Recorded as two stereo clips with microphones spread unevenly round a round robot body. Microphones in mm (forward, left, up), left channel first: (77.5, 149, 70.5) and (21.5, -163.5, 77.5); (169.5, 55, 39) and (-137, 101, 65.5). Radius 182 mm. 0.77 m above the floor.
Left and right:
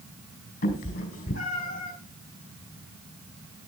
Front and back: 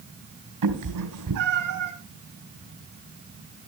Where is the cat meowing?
150° left, 3.5 m.